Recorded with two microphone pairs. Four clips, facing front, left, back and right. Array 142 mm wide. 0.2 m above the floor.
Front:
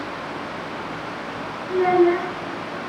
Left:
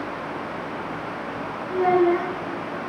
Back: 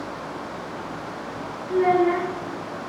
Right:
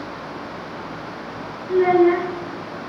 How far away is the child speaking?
About 2.0 m.